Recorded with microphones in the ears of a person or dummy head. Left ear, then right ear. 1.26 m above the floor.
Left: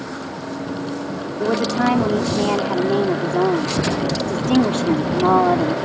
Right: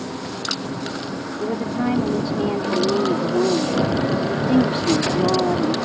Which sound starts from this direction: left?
A woman speaking, at 1.4 s.